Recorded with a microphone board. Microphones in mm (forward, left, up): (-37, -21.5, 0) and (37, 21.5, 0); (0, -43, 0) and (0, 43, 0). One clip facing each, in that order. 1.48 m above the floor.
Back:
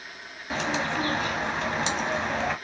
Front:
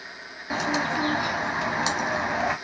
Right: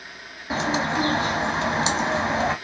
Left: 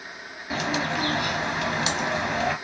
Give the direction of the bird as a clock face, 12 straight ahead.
2 o'clock.